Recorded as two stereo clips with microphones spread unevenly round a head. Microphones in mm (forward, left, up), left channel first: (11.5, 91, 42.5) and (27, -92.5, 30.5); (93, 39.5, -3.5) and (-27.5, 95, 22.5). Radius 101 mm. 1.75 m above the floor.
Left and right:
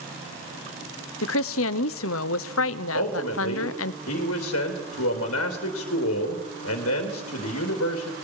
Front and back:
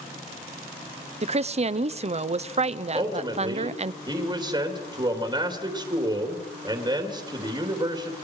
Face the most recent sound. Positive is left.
turn(degrees=100)